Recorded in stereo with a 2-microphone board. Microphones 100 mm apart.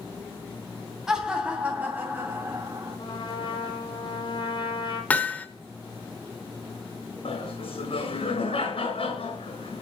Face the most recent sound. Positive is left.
turn(degrees=75)  # may be behind; listen again after turning